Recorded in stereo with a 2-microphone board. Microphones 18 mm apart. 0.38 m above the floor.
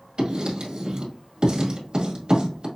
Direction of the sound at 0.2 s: 50° right (ahead or behind).